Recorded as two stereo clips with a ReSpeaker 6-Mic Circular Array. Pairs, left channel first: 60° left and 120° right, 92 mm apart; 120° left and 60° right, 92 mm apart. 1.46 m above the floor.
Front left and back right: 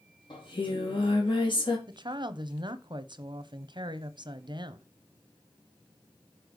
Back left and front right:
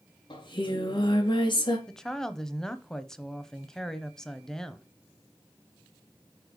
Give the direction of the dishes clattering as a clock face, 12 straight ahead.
I don't hear dishes clattering.